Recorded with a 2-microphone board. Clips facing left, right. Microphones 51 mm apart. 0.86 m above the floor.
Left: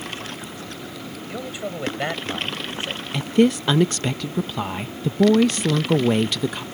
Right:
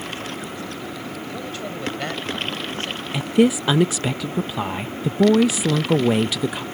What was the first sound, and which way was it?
A man speaking, 15° left (ahead or behind).